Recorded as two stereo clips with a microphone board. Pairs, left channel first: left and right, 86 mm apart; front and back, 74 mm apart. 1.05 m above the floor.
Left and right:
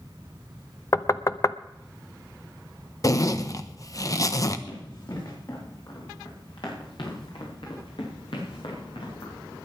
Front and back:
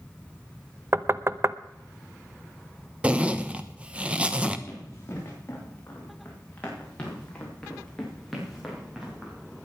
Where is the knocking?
135° left, 0.6 m.